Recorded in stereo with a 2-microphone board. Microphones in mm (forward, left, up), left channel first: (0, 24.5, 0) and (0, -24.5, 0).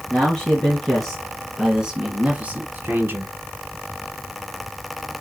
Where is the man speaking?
15° left (ahead or behind), 3 m; by 3.4 s 50° right (ahead or behind), 1.9 m.